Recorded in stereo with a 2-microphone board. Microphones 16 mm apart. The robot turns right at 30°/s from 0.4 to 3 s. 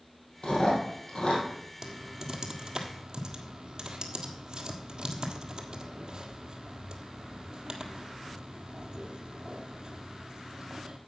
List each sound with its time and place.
0.4 s chewing: 80° left, 4 m; by 1.4 s 70° left (ahead or behind), 4 m
1.8 s typing on a keyboard: 20° right (ahead or behind), 1.2 m; by 11.0 s 55° right (ahead or behind), 1.2 m